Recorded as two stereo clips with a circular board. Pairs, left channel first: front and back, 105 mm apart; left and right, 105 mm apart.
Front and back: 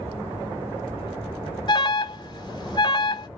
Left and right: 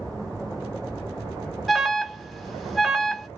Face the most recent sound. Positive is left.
turn(degrees=0)